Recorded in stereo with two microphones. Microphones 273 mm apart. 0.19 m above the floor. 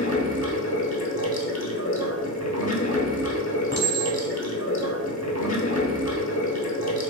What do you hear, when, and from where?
0.0 s running water: 75° left (ahead or behind), 0.8 m
3.7 s a clink: 40° left (ahead or behind), 1.3 m